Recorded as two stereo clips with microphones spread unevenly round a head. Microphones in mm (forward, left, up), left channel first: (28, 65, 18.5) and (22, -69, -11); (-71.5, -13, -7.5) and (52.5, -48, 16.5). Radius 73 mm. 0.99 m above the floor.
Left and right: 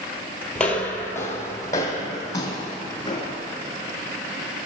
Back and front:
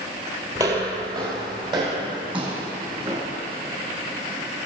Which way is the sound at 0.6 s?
20° left.